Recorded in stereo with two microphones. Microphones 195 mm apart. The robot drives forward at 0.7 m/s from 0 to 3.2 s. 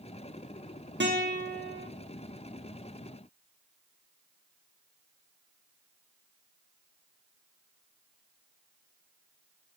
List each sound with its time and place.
1.0 s a guitar: 70° right (ahead or behind), 1.5 m; by 1.9 s 65° right (ahead or behind), 1.6 m